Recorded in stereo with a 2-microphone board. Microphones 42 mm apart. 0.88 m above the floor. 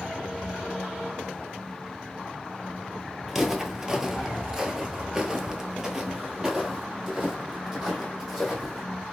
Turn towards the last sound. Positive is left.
turn(degrees=-10)  # may be behind; listen again after turning